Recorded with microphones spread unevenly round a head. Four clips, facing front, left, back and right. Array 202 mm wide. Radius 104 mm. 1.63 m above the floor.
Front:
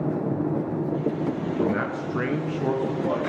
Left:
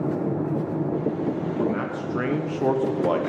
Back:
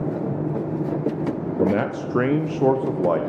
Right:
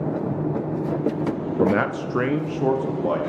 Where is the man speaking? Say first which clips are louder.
Right 9 dB, back 6 dB; 135° right, 0.7 m; by 3.2 s 165° left, 1.6 m.